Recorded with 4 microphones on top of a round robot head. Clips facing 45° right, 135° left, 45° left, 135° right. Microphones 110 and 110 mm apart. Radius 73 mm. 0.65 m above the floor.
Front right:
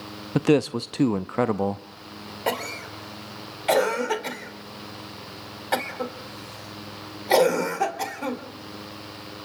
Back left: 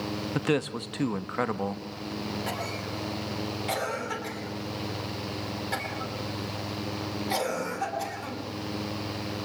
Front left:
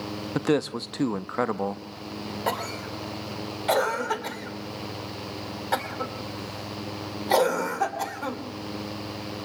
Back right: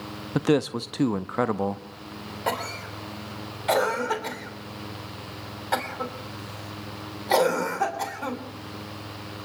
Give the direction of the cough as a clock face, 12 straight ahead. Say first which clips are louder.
Front right 4 dB, back right 1 dB; 1 o'clock.